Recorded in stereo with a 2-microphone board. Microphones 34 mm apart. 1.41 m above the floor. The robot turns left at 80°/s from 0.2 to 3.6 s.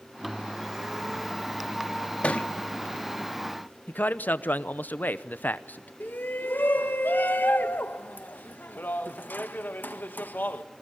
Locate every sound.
2.2 s a thud: 40° left (ahead or behind), 1.0 m; by 2.5 s 45° left (ahead or behind), 1.0 m
3.9 s a man speaking: 65° left (ahead or behind), 0.9 m
6.0 s a shout: 75° left (ahead or behind), 1.6 m